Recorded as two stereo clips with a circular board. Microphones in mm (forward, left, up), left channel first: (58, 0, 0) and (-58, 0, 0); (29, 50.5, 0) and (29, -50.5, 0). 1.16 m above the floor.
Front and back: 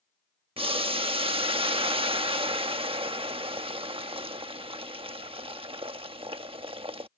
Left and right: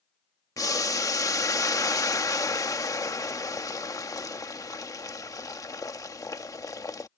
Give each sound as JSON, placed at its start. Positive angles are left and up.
{"t": 0.6, "sound": "boiling", "azimuth_deg": 145}